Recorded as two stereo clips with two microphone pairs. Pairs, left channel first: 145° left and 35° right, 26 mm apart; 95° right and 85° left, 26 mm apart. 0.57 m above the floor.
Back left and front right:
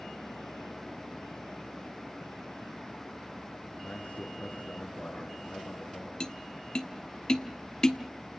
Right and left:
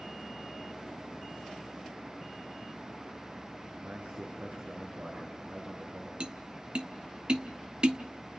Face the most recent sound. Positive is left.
turn(degrees=105)